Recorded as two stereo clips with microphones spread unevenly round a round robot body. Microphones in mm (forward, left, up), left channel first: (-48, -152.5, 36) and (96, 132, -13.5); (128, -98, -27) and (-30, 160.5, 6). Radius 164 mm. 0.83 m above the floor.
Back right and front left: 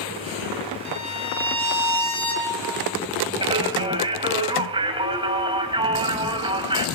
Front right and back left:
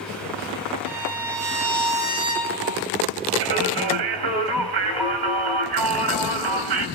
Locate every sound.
0.8 s a violin: 170° left, 5.5 m
3.4 s singing: 140° left, 2.5 m